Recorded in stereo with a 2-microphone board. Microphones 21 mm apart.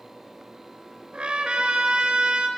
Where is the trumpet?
70° right (ahead or behind), 2 m.